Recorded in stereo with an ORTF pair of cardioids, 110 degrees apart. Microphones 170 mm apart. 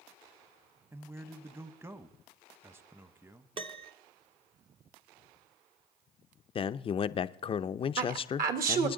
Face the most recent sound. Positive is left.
turn(degrees=-60)